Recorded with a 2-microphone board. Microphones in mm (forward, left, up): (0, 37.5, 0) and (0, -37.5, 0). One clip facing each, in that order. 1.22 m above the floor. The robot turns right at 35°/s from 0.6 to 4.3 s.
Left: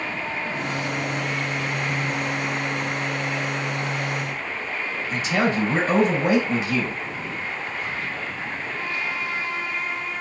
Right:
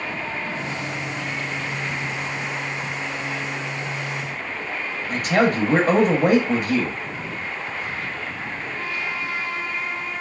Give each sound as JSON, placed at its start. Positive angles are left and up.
{"t": 5.1, "sound": "a man speaking", "side_deg": -50, "distance_m": 0.7}